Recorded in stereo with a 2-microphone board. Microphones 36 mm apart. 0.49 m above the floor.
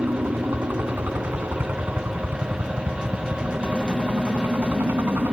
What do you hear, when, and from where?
0.0 s a helicopter: 75° right (ahead or behind); by 5.3 s 70° right (ahead or behind)